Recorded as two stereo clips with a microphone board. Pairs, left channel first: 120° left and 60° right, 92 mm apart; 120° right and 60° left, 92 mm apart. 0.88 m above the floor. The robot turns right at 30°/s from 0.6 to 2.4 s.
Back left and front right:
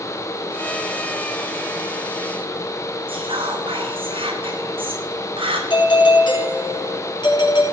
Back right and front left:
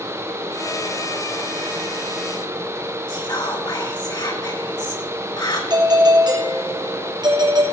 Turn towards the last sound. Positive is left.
turn(degrees=95)